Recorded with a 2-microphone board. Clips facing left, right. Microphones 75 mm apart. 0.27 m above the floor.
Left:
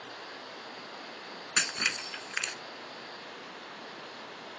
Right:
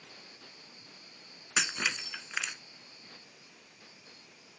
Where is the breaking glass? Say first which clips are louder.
Even; 5° right (ahead or behind).